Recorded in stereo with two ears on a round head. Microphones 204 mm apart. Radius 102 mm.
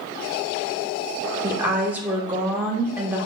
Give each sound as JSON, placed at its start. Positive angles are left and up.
{"t": 1.4, "sound": "a woman speaking", "side_deg": -10, "distance_m": 0.7}